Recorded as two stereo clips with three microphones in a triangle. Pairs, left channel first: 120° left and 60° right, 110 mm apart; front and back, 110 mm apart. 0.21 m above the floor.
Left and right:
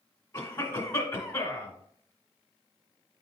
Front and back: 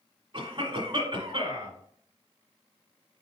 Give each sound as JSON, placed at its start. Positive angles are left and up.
{"t": 0.3, "sound": "a cough", "azimuth_deg": 165, "distance_m": 1.4}